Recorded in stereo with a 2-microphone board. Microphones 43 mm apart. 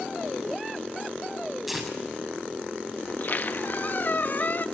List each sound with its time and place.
1.7 s tearing paper: 5° right (ahead or behind), 7 m
3.1 s a squeak: 45° left (ahead or behind), 0.9 m